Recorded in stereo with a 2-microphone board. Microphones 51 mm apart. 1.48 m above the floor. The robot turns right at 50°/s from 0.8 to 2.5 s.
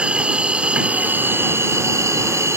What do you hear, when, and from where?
0.0 s an insect: 155° right; by 2.6 s 70° right